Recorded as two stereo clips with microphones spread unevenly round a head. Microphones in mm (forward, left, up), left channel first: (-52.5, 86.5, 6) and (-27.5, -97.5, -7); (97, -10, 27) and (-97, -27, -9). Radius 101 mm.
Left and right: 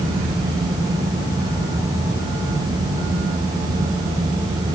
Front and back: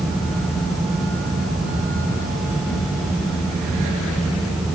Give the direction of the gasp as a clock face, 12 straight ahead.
No gasp in this recording.